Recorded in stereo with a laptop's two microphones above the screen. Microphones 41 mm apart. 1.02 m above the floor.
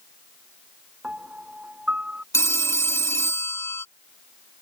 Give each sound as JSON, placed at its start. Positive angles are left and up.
{"t": 1.0, "sound": "a piano", "side_deg": -25}
{"t": 2.3, "sound": "a phone ringing", "side_deg": 80}